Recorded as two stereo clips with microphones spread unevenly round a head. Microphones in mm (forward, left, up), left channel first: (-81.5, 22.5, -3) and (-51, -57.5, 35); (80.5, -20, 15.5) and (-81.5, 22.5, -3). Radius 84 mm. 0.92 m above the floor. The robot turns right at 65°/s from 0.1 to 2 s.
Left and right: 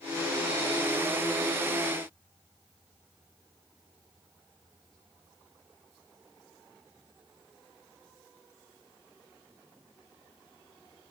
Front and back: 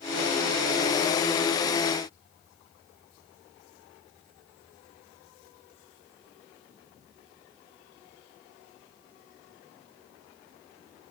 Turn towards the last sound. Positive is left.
No sound to turn to.